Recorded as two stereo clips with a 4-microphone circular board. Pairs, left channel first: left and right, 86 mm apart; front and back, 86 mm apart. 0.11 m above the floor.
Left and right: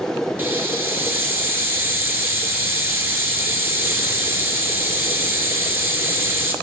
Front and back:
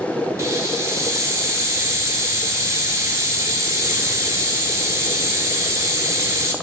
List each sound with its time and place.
0.4 s a hiss: 145° right, 0.6 m